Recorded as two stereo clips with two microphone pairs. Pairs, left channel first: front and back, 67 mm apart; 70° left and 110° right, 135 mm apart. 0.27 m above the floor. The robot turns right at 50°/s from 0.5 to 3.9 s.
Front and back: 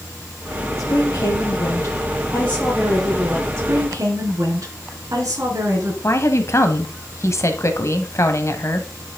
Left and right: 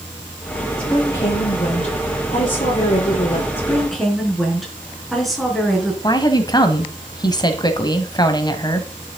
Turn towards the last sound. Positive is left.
turn(degrees=20)